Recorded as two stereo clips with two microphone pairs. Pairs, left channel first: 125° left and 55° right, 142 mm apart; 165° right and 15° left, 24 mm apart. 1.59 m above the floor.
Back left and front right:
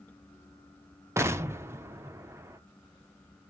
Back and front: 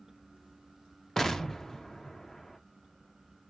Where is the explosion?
110° right, 0.6 m.